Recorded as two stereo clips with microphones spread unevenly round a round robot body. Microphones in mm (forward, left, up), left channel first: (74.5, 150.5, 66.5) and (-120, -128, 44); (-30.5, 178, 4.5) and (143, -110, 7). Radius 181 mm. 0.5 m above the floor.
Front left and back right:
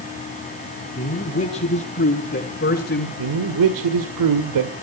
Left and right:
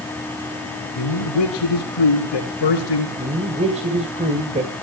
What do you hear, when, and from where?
0.9 s a man speaking: 125° left, 7 m; by 3.1 s 115° left, 9 m
3.2 s a man speaking: 130° right, 2 m